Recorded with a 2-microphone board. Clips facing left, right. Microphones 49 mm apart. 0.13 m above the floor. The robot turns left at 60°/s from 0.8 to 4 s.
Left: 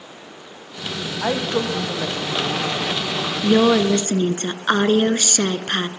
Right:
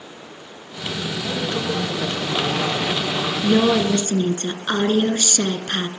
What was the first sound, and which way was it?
A woman speaking, 60° left.